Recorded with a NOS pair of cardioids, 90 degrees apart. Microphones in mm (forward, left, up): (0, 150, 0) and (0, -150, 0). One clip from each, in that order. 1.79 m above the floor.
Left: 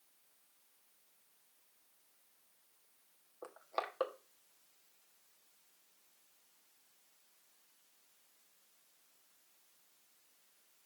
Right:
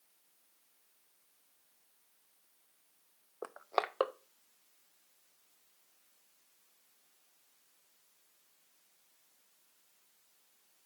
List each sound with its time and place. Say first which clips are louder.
3.4 s crushing: right 6 dB; 40° right, 0.7 m